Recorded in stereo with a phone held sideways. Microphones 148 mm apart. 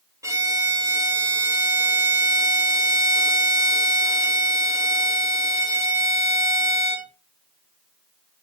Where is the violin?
20° right (ahead or behind), 2 m.